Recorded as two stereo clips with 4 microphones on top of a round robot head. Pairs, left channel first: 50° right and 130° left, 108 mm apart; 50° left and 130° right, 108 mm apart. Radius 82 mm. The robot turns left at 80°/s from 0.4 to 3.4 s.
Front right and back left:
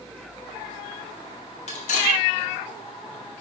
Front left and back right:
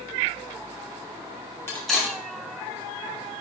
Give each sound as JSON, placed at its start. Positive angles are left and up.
{"t": 1.7, "sound": "cutlery clinking", "azimuth_deg": -20, "distance_m": 2.5}